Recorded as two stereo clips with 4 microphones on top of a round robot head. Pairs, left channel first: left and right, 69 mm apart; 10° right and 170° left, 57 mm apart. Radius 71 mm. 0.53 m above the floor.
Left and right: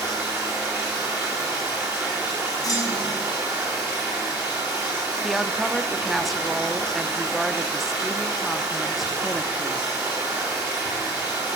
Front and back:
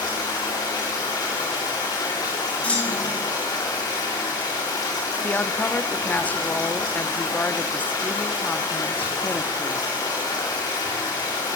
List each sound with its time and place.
0.0 s running water: 25° right, 7 m
2.6 s a clunk: 55° left, 4.5 m
5.2 s a woman speaking: straight ahead, 0.8 m